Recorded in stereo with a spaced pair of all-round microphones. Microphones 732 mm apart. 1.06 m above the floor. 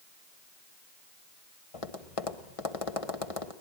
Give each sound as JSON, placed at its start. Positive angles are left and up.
{"t": 1.7, "sound": "tapping", "side_deg": 50, "distance_m": 1.4}